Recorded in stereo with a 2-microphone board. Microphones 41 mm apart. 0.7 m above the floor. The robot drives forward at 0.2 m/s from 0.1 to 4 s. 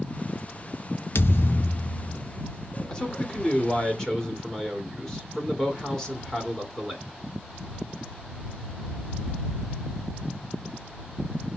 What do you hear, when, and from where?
1.1 s a thud: 80° left, 0.6 m; by 2.2 s 60° left (ahead or behind), 0.6 m
2.9 s a man speaking: 20° left (ahead or behind), 2 m; by 7.0 s 15° left (ahead or behind), 2.5 m